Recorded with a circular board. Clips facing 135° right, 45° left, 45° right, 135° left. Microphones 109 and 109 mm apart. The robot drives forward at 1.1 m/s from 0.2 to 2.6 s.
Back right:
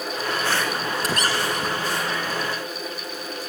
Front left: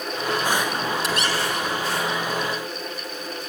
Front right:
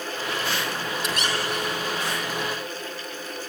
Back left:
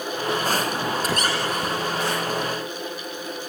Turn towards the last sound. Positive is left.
turn(degrees=180)